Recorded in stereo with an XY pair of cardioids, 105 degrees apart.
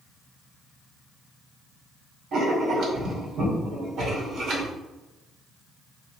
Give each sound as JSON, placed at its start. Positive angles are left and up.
{"t": 2.3, "sound": "writing", "azimuth_deg": -65, "distance_m": 1.9}